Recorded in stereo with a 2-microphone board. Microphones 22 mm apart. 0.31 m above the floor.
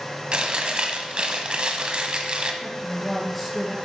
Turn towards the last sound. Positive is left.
turn(degrees=10)  # may be behind; listen again after turning